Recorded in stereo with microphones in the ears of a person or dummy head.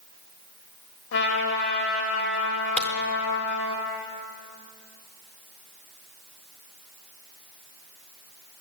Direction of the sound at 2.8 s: 5° left (ahead or behind).